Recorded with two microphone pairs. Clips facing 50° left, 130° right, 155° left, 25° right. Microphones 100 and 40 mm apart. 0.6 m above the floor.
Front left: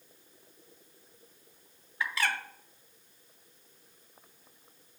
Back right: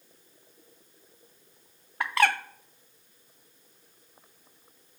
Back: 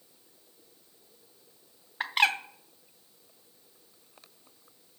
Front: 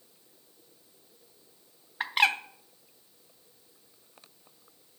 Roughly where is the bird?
Right.